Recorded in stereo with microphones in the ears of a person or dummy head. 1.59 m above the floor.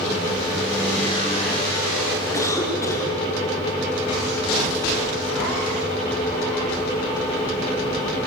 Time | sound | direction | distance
2.3 | a cough | 15° left (ahead or behind) | 5 m